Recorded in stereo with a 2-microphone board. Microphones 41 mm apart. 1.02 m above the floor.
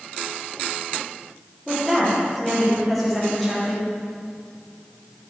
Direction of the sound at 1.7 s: Centre (ahead or behind).